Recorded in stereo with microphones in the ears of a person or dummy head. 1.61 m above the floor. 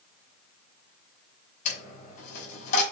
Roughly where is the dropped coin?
Left.